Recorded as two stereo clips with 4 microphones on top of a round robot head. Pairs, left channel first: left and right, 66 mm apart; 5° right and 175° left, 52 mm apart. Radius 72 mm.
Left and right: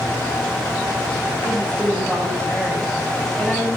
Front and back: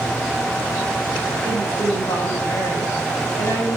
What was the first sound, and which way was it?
A woman speaking, 10° left.